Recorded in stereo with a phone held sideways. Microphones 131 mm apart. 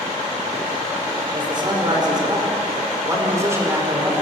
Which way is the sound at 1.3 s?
35° right (ahead or behind).